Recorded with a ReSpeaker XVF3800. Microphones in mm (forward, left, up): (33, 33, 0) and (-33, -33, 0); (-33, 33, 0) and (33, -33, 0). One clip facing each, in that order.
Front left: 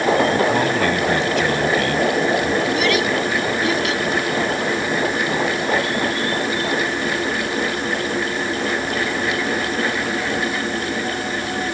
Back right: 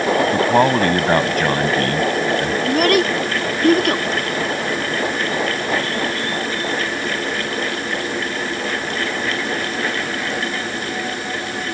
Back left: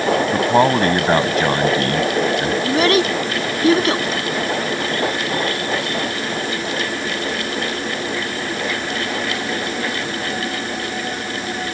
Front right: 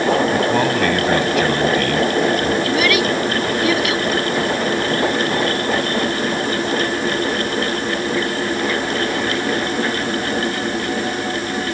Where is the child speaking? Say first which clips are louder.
Back right 3 dB, back left 1 dB; 170° right.